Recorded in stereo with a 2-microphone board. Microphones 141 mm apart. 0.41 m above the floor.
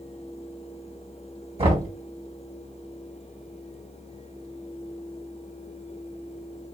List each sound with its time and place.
1.6 s knocking: 40° right (ahead or behind), 2.5 m